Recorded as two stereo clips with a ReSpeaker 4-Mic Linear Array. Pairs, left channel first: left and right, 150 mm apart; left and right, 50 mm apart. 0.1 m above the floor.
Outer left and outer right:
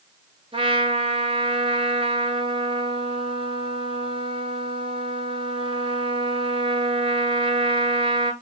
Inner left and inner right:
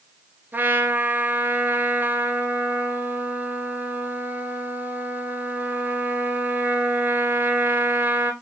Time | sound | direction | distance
0.5 | a trumpet | 35° right (ahead or behind) | 1.1 m